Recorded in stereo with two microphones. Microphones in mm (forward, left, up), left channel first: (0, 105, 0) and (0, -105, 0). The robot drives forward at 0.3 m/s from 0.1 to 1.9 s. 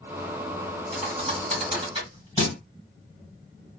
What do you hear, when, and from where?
0.9 s a thud: 30° right (ahead or behind), 1.8 m